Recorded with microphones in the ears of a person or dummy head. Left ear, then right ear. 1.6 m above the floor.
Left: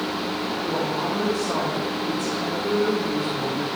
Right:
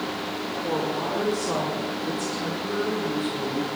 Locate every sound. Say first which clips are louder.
0.6 s a woman speaking: even; 80° right, 3 m; by 3.8 s 35° right (ahead or behind), 1.4 m